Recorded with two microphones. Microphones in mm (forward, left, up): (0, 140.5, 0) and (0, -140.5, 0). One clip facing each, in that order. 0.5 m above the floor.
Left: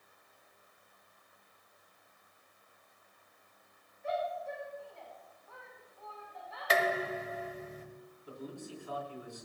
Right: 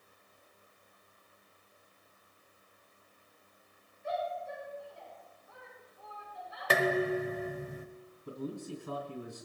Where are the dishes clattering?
60° right (ahead or behind), 1.4 m.